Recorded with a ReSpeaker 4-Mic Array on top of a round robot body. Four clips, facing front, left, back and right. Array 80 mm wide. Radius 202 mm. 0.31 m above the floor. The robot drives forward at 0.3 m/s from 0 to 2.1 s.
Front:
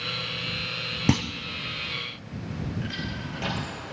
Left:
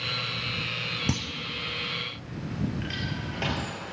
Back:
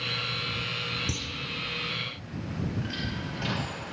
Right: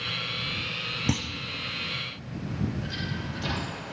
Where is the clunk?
5° right, 0.5 m.